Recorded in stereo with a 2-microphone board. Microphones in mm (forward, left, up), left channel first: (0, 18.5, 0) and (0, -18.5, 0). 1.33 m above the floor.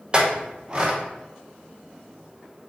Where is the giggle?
No giggle in this recording.